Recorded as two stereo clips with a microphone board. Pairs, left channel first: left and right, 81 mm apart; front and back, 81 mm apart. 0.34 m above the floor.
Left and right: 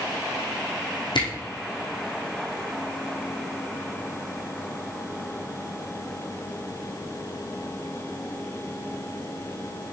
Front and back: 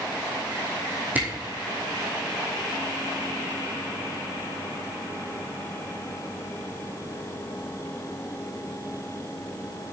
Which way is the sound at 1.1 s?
110° left.